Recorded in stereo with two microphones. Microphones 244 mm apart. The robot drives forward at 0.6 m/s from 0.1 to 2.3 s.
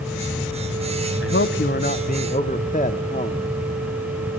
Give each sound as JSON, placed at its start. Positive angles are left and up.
{"t": 1.2, "sound": "a man speaking", "side_deg": 60, "distance_m": 0.8}